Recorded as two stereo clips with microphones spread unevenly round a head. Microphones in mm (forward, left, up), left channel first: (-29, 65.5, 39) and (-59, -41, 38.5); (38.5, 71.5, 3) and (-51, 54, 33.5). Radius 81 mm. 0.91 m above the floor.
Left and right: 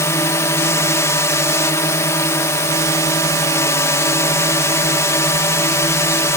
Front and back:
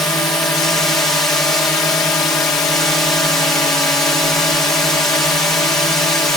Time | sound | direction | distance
0.0 | a drone | 45° left | ?